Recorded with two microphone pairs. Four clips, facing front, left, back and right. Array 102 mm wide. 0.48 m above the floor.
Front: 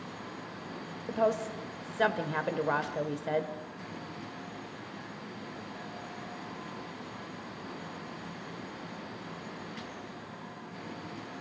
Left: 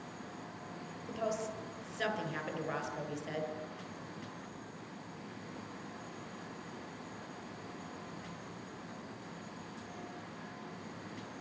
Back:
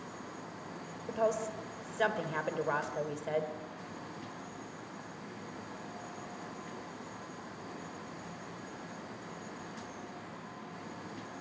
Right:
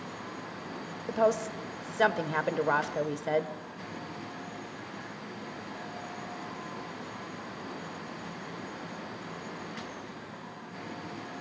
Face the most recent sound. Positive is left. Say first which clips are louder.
# right 10 dB, front 3 dB
turn(degrees=-90)